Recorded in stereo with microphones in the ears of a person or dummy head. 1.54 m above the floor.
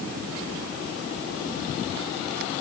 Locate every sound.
Only background noise.